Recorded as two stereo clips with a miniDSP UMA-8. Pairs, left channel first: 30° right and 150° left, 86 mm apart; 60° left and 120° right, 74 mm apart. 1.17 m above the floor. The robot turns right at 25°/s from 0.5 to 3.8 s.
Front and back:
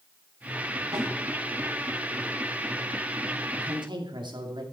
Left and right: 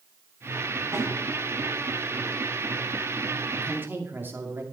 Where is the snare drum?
170° right, 3.5 m; by 1.1 s 165° right, 3.5 m.